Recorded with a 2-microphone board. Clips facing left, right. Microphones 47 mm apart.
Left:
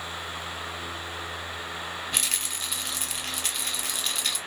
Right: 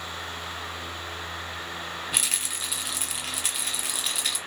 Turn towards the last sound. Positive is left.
turn(degrees=-5)  # may be behind; listen again after turning